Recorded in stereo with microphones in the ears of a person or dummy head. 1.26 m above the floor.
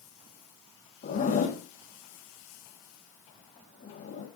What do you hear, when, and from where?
1.0 s a zipper: 40° left (ahead or behind), 3 m